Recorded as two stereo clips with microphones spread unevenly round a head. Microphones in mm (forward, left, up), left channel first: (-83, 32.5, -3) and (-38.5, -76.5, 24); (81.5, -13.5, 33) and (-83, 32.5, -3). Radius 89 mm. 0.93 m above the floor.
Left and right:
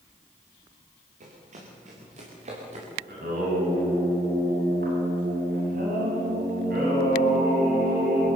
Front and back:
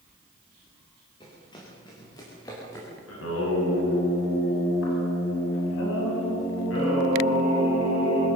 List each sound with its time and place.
1.2 s running footsteps: 80° right, 7 m; by 2.9 s 90° right, 8.5 m
3.1 s singing: 35° right, 7 m